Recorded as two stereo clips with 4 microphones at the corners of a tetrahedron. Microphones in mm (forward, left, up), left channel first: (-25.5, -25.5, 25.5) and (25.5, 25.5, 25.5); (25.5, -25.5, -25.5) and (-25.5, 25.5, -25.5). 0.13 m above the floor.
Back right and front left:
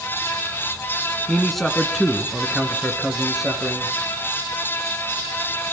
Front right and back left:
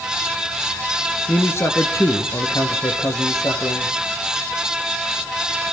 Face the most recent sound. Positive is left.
turn(degrees=-40)